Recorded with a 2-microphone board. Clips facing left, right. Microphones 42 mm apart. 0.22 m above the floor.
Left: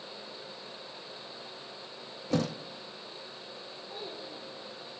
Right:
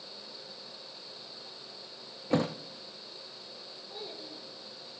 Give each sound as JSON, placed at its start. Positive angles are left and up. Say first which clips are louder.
{"t": 2.3, "sound": "a thud", "louder": "right 1 dB", "side_deg": -30, "distance_m": 1.2}
{"t": 3.9, "sound": "a child speaking", "louder": "left 1 dB", "side_deg": 5, "distance_m": 7.0}